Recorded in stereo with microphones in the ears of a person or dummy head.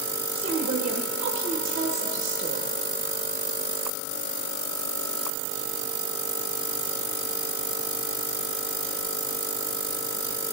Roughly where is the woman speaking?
Right.